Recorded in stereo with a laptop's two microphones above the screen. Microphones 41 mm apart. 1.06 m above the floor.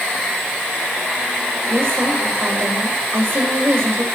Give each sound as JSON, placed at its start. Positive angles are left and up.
{"t": 1.7, "sound": "a woman speaking", "side_deg": -70, "distance_m": 4.5}